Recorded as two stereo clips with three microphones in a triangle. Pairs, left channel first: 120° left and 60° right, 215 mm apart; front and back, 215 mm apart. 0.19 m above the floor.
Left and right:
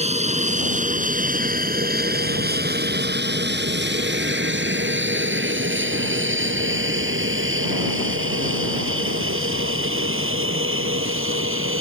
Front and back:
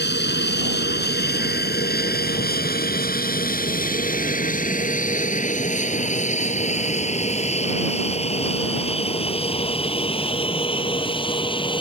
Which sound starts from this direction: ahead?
An aircraft, at 0.0 s.